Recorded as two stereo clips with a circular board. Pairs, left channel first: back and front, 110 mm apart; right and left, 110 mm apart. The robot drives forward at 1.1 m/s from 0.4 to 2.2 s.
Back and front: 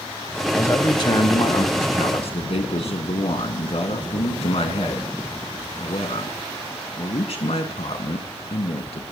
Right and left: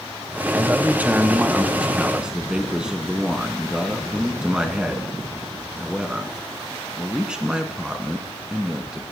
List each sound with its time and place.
0.5 s a man speaking: 135° left, 0.9 m; by 9.0 s 170° left, 2.5 m